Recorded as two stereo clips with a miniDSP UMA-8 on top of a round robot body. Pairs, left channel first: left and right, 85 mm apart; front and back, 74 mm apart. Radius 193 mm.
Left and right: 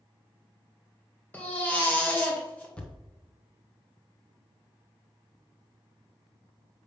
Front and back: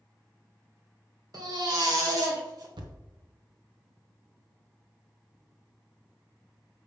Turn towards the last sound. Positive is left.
turn(degrees=165)